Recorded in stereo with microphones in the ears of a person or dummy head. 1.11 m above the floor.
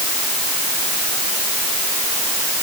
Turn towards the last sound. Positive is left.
No sound to turn to.